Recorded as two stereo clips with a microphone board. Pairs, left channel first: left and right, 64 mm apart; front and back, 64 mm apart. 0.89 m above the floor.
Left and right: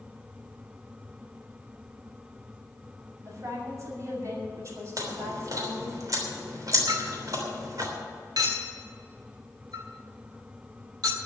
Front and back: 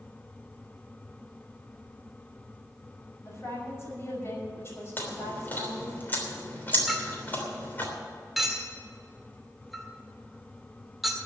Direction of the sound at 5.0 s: 60° right.